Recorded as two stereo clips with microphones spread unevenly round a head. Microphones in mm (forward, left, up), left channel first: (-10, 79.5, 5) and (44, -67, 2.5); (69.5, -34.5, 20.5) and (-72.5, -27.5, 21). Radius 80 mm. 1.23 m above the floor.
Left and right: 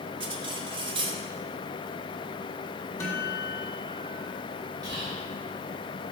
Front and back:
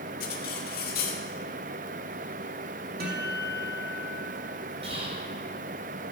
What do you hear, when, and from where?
0.2 s cutlery clinking: 15° right, 1.5 m
3.0 s a guitar: 175° right, 2 m
4.8 s whispering: 140° right, 4.5 m